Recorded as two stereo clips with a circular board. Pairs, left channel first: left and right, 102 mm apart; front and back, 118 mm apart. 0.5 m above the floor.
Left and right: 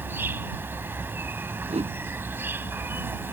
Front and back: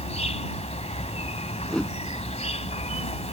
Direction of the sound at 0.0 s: 20° right.